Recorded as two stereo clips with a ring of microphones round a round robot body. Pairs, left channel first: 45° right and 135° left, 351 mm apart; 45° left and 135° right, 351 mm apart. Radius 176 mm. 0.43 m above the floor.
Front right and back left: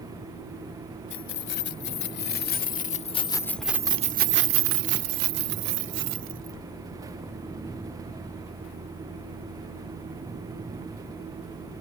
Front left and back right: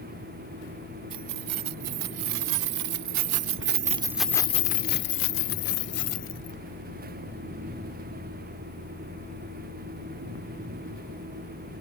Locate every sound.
1.1 s keys jangling: 105° right; by 6.6 s 90° left